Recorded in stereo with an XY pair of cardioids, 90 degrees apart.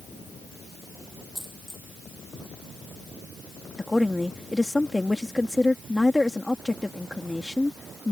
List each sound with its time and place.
1.4 s a dropped coin: 5° left
3.8 s a woman speaking: 15° left